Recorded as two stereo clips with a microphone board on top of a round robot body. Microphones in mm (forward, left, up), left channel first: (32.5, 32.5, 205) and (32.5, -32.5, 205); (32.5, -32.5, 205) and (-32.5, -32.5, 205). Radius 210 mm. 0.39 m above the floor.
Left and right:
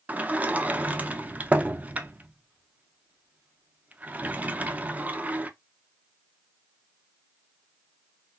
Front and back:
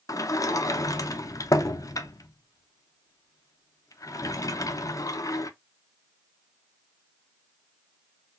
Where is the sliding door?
25° right, 0.6 m.